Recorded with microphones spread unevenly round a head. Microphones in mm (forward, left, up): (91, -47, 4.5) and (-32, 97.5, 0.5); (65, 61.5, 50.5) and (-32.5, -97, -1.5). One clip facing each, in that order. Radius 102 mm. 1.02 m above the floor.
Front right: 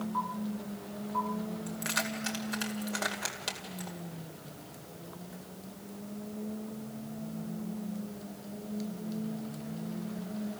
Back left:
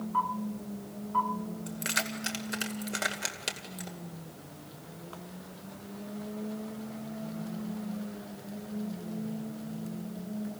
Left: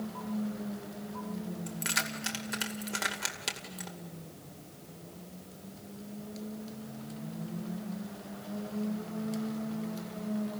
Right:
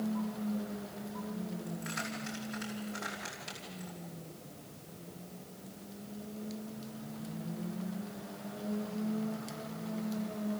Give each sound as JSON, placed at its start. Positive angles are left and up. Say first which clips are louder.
{"t": 1.7, "sound": "keys jangling", "louder": "front right 1 dB, left 1 dB", "azimuth_deg": 70, "distance_m": 2.5}